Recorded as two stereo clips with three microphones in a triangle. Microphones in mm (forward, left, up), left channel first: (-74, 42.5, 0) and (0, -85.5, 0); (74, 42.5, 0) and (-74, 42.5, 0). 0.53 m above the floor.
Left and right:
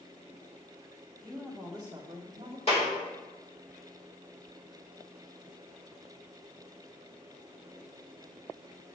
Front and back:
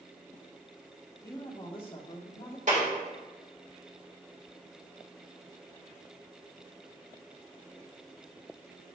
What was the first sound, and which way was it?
A woman speaking, 55° left.